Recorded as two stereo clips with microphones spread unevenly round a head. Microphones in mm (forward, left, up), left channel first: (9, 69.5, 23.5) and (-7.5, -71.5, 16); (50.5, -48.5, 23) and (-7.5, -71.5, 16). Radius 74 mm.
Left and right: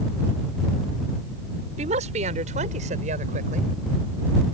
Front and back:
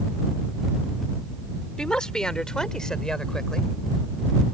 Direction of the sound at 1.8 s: 55° right.